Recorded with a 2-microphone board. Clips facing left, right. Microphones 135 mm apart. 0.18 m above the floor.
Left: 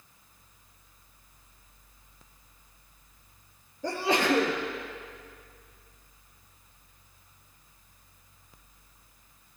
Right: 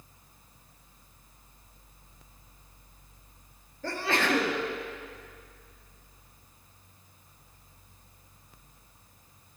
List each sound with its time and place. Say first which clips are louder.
3.8 s a sneeze: left 3 dB; 15° left (ahead or behind), 3 m